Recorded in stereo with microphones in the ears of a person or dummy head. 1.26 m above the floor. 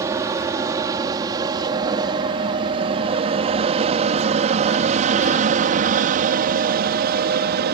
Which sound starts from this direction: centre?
An aircraft, at 0.0 s.